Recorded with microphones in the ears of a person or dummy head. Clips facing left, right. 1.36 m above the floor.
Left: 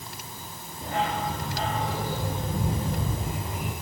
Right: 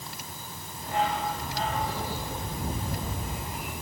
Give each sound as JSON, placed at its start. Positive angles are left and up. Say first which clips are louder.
{"t": 0.8, "sound": "a dog barking", "louder": "even", "side_deg": 55, "distance_m": 9.5}